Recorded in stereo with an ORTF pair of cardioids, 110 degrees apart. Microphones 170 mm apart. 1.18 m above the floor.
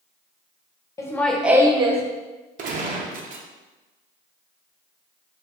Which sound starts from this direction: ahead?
Laughter, at 1.0 s.